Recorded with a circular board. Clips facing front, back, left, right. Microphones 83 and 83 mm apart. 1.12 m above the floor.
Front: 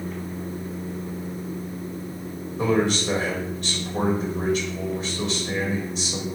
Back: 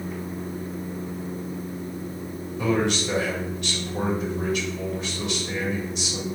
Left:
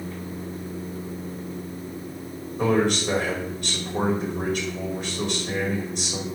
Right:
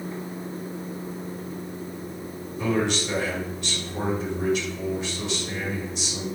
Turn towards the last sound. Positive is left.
turn(degrees=55)